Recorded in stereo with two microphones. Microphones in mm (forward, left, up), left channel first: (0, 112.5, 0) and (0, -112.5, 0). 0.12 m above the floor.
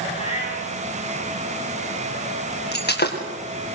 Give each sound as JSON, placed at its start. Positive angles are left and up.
{"t": 0.1, "sound": "a cat meowing", "side_deg": 30, "distance_m": 9.5}
{"t": 2.7, "sound": "breaking glass", "side_deg": 50, "distance_m": 6.0}